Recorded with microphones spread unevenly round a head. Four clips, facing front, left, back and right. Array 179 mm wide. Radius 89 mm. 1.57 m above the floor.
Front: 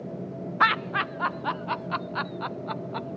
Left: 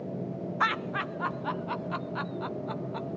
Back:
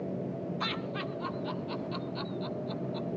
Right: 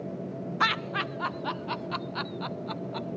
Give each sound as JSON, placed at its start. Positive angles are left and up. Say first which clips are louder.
{"t": 0.6, "sound": "laughter", "louder": "right 1 dB, front 11 dB", "azimuth_deg": -5, "distance_m": 0.6}